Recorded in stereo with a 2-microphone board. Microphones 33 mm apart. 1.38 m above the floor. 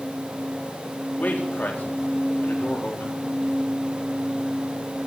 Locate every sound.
1.2 s a man speaking: 55° left (ahead or behind), 3.5 m